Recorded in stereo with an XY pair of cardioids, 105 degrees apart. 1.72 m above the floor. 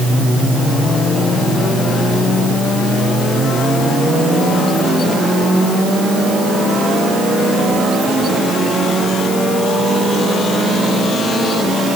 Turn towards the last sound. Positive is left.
No sound to turn to.